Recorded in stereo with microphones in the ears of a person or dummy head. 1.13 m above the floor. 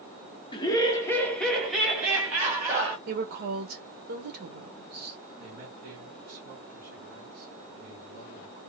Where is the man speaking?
50° right (ahead or behind), 1.7 m.